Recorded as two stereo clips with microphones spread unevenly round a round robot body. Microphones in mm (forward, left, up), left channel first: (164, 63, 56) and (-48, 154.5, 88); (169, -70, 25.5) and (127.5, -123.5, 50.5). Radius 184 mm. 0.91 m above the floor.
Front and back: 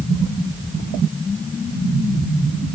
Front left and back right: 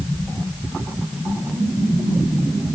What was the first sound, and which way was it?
Only background noise.